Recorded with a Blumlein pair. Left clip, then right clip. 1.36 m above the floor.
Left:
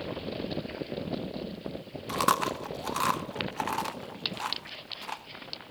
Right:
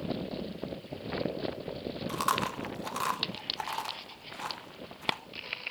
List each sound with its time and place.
2.1 s chewing: 10° left, 1.3 m